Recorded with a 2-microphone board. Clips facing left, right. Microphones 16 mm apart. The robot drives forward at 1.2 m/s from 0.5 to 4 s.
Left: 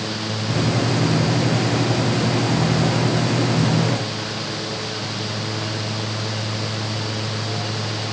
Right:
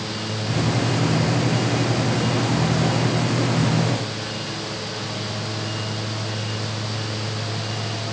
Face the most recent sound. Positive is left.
No sound to turn to.